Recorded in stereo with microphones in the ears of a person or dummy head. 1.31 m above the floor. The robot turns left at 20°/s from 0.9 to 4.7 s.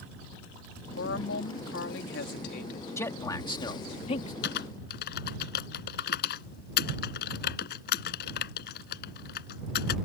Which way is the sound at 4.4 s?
70° left (ahead or behind).